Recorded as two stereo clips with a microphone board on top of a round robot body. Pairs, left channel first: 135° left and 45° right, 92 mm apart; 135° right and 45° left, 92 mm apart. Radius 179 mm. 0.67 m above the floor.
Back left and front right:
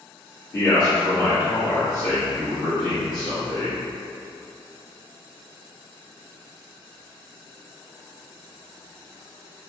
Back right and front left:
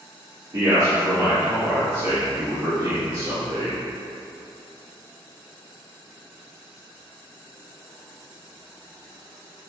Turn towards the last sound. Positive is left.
turn(degrees=115)